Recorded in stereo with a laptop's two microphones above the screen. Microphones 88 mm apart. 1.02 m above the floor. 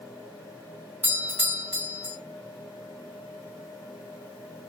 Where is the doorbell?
20° right (ahead or behind), 0.9 m.